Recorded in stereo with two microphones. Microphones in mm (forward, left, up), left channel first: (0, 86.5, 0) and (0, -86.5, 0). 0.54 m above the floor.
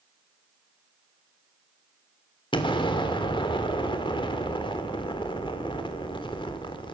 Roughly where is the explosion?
Left.